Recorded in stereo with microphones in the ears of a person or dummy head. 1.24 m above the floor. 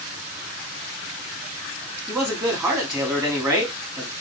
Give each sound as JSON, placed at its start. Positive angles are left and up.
{"t": 2.1, "sound": "a man speaking", "side_deg": -25, "distance_m": 2.0}